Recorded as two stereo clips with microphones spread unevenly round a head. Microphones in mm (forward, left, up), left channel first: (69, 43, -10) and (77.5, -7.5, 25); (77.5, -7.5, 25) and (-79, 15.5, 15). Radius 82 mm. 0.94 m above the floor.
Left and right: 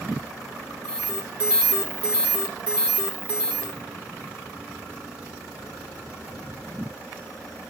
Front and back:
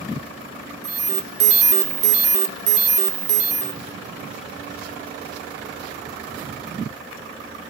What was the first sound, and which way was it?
An alarm, straight behind.